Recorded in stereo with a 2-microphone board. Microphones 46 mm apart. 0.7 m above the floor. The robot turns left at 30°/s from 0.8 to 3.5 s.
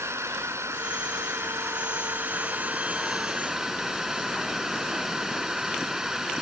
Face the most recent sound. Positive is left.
turn(degrees=-170)